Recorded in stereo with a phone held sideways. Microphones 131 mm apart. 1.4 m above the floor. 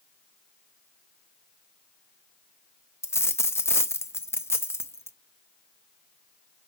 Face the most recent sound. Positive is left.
turn(degrees=20)  # may be behind; listen again after turning